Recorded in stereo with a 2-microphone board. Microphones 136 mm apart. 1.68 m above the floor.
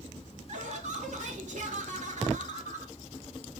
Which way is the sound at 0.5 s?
60° right (ahead or behind).